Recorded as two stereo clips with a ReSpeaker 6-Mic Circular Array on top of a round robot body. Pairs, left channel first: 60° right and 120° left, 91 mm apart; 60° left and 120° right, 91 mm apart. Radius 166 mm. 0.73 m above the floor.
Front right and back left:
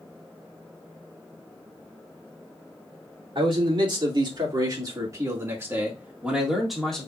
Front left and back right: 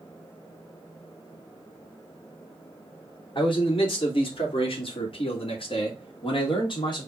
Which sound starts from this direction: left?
A man speaking, at 3.4 s.